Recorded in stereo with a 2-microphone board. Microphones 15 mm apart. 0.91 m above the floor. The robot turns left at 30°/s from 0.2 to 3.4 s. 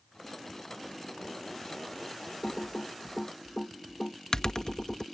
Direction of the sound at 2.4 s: 60° left (ahead or behind).